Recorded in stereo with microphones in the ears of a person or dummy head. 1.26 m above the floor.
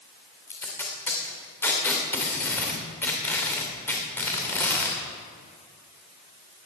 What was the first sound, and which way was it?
Tape being pulled, 10° left (ahead or behind).